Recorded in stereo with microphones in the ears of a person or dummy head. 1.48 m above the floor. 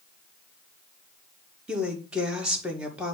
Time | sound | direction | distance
1.7 | a woman speaking | 5° right (ahead or behind) | 1.7 m